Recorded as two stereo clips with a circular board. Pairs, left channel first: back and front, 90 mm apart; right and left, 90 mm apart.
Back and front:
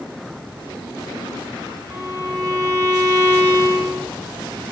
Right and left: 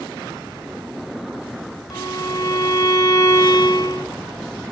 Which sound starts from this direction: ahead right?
A violin, at 1.9 s.